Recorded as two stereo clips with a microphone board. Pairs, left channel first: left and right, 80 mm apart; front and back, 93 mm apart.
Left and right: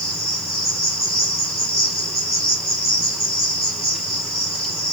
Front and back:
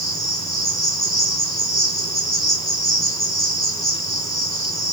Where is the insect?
45° right, 2.5 m.